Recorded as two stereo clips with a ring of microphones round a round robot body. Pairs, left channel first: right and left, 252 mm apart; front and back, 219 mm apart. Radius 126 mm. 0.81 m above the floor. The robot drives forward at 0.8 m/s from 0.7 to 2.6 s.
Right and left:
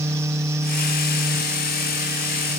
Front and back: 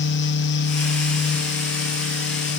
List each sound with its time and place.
Only background noise.